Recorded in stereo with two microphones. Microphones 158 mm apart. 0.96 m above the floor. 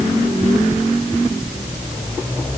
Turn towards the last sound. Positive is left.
No sound to turn to.